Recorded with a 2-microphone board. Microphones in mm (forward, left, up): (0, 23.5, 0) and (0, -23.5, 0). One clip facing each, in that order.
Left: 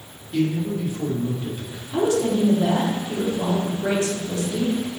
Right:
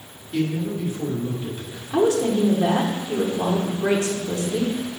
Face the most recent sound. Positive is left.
turn(degrees=-20)  # may be behind; listen again after turning